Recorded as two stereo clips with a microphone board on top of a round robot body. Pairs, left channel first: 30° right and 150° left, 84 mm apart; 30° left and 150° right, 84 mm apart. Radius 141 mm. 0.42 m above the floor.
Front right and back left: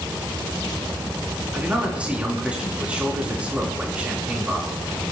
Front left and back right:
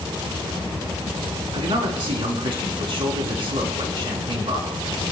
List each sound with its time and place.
1.5 s a man speaking: 135° right, 4.5 m